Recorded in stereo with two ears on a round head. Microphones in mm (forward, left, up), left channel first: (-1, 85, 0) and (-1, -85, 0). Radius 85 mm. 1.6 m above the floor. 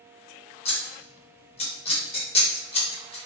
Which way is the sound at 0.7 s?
30° left (ahead or behind).